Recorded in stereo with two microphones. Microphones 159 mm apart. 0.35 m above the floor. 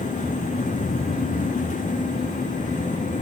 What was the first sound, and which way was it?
Only background noise.